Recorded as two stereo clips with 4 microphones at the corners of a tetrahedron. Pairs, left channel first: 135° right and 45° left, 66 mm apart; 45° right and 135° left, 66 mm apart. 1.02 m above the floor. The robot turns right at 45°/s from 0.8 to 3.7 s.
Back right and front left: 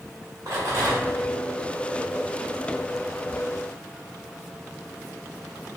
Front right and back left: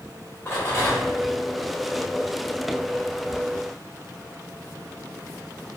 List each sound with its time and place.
0.5 s a rattle: 5° left, 1.9 m; by 1.2 s 25° left, 1.9 m